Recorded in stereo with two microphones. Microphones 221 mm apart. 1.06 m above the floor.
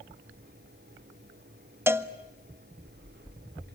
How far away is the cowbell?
About 0.7 m.